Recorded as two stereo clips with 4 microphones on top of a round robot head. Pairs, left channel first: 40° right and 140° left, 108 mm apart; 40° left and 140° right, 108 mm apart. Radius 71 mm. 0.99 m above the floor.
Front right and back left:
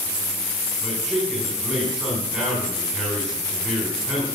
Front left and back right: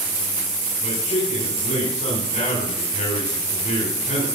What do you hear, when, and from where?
0.8 s a man speaking: 55° left, 4 m